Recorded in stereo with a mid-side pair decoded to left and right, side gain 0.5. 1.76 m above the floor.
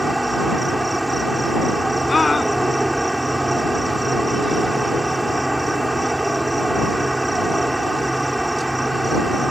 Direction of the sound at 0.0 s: 5° right.